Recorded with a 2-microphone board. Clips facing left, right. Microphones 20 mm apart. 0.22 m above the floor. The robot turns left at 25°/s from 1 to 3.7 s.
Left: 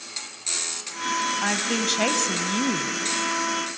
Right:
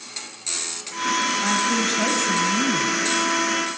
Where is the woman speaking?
135° left, 1.1 m; by 3.0 s 95° left, 1.1 m.